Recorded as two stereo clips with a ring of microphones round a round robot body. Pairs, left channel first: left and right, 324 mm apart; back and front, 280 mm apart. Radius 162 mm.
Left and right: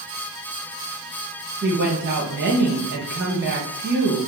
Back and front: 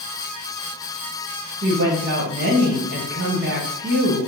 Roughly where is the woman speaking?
Ahead right.